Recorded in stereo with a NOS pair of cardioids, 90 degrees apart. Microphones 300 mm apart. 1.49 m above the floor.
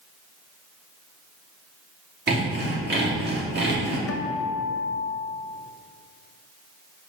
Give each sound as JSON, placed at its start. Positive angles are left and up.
{"t": 2.3, "sound": "sawing", "azimuth_deg": -35, "distance_m": 2.5}
{"t": 4.1, "sound": "a guitar", "azimuth_deg": 50, "distance_m": 0.8}